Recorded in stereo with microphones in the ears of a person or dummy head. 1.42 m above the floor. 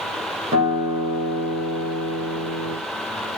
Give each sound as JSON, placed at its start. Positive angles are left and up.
{"t": 0.5, "sound": "a guitar", "side_deg": -35, "distance_m": 7.5}